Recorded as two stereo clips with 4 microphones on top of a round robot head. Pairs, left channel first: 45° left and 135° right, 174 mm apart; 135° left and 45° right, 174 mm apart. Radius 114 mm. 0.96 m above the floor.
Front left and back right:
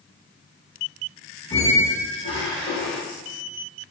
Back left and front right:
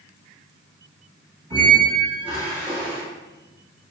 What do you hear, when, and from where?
1.5 s a squeak: 10° left, 1.1 m